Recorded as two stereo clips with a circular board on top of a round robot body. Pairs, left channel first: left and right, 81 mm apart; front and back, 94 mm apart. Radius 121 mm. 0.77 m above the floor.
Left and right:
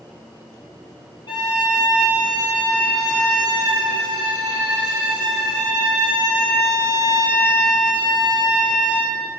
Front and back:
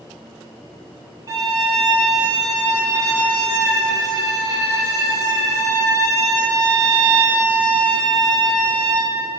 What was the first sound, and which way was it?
A violin, 120° left.